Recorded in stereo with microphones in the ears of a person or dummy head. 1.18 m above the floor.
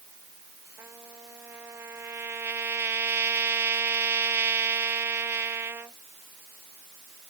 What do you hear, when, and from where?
0.8 s a trumpet: 15° right (ahead or behind)